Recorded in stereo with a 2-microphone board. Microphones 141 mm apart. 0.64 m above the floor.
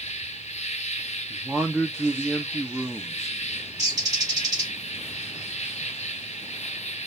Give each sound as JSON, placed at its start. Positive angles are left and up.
{"t": 0.0, "sound": "an insect", "side_deg": 55, "distance_m": 0.7}
{"t": 1.3, "sound": "a man speaking", "side_deg": 0, "distance_m": 0.7}
{"t": 3.8, "sound": "a bird", "side_deg": -30, "distance_m": 1.9}